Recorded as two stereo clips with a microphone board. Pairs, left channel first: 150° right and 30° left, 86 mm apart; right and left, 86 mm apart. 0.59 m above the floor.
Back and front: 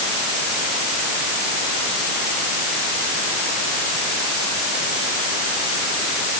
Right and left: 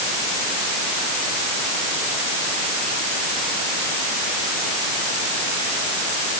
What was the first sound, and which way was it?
Only background noise.